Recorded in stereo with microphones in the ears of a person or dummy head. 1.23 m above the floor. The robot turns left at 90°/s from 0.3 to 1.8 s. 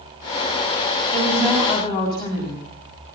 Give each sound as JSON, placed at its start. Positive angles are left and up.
{"t": 1.1, "sound": "a woman speaking", "azimuth_deg": -145, "distance_m": 7.5}